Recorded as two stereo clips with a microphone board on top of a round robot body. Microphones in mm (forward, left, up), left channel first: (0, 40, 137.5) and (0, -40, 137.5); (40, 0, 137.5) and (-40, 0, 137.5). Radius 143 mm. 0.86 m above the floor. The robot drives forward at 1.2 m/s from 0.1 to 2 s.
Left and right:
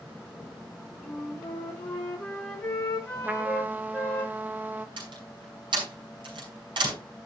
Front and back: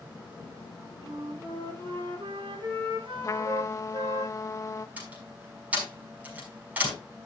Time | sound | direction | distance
1.0 | a flute | 165° left | 5 m
3.2 | a trumpet | 30° right | 0.9 m
5.0 | a door slam | 110° right | 5.5 m